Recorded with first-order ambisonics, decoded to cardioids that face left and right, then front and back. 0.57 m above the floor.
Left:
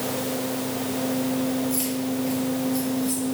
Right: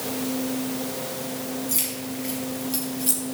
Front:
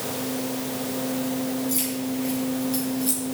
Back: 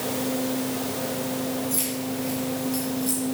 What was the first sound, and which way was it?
Keys jangling, 80° right.